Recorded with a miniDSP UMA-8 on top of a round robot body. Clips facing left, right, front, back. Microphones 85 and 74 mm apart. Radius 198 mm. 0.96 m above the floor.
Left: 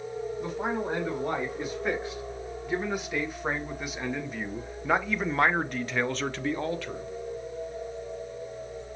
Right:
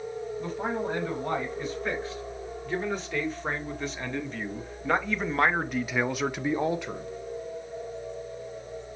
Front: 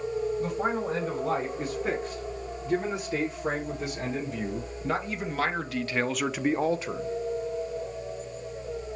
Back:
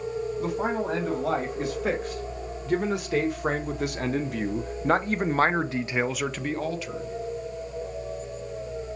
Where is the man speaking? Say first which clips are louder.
Even, back 1 dB; 165° left, 3 m; by 7.1 s 25° right, 0.8 m.